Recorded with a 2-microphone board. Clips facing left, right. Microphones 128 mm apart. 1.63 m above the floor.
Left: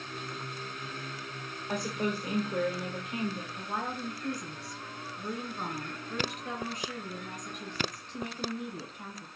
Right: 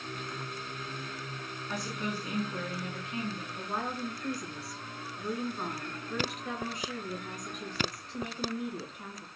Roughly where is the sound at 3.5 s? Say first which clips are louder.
Even; centre.